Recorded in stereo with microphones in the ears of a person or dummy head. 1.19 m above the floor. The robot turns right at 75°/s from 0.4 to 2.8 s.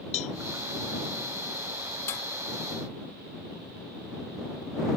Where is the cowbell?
40° left (ahead or behind).